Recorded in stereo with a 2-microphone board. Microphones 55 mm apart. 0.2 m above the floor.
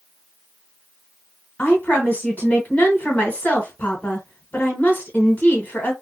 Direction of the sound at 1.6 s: 30° left (ahead or behind).